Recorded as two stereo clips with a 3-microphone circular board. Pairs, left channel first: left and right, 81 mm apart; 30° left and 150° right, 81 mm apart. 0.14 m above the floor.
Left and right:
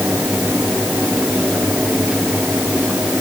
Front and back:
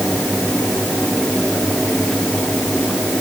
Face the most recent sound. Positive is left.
No sound to turn to.